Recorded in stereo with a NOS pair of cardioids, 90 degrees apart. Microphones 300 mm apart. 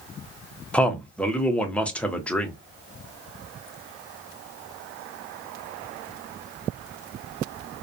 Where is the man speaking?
5° left, 0.6 m.